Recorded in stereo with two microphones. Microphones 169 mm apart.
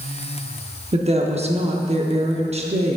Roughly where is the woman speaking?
Right.